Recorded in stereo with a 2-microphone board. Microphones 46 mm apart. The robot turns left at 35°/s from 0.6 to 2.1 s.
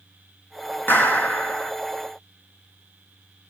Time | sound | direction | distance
0.9 | a clap | 50° left (ahead or behind) | 2.5 m